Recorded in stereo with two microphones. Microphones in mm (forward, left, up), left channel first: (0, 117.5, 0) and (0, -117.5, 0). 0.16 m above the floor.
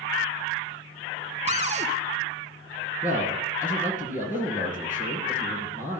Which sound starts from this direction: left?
A man speaking, at 3.0 s.